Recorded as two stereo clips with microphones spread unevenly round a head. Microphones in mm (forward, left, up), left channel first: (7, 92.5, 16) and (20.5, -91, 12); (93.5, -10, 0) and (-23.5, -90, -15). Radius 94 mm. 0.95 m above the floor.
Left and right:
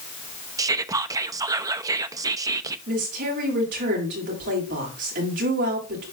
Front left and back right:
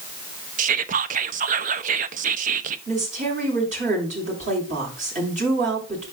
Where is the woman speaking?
120° right, 6.5 m.